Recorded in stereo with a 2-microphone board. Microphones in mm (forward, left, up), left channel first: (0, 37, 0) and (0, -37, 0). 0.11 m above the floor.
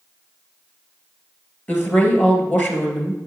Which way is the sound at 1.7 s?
25° left (ahead or behind).